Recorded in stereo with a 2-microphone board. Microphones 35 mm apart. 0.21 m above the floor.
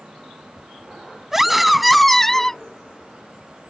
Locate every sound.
1.3 s a scream: 10° right (ahead or behind); by 2.6 s 15° left (ahead or behind)